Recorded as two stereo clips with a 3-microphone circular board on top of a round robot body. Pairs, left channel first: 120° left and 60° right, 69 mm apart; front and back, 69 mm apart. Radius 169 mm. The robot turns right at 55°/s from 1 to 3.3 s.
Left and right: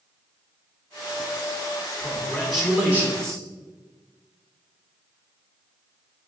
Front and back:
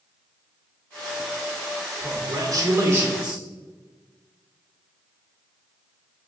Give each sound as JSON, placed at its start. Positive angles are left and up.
{"t": 2.0, "sound": "a man speaking", "azimuth_deg": -175, "distance_m": 2.0}